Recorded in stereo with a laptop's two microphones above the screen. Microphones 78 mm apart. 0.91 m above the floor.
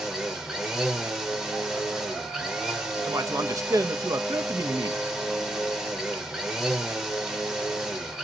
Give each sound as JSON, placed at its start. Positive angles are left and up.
{"t": 0.0, "sound": "a machine running", "side_deg": -5, "distance_m": 0.9}
{"t": 3.1, "sound": "a man speaking", "side_deg": -45, "distance_m": 0.6}